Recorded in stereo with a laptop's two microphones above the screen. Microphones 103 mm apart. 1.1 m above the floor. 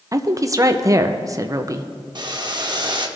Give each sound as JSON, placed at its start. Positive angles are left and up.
{"t": 0.1, "sound": "a woman speaking", "side_deg": -30, "distance_m": 0.5}
{"t": 2.1, "sound": "boiling", "side_deg": -45, "distance_m": 0.8}